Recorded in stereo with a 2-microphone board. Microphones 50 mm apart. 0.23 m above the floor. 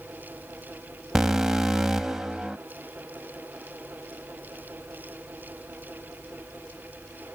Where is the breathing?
I don't hear breathing.